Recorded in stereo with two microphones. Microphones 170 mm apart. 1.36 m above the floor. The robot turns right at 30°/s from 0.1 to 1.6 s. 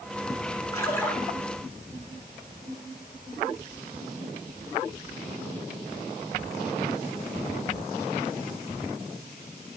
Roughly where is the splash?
Left.